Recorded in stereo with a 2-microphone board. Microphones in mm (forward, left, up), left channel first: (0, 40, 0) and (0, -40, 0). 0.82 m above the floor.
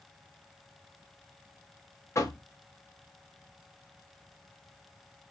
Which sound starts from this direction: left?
Knocking, at 2.1 s.